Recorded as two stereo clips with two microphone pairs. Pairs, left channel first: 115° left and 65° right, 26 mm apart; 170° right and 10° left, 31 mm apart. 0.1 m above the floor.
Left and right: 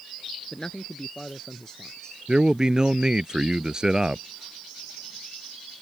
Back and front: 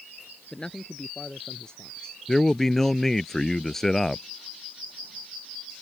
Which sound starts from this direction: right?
A man speaking, at 2.3 s.